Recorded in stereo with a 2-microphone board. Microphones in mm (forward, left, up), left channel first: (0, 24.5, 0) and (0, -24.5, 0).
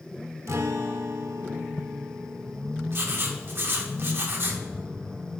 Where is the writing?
55° right (ahead or behind), 1.0 m.